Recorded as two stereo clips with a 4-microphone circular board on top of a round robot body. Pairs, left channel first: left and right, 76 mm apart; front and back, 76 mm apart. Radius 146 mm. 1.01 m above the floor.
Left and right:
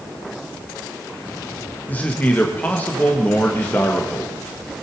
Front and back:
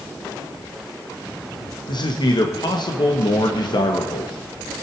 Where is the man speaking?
20° left, 1.8 m.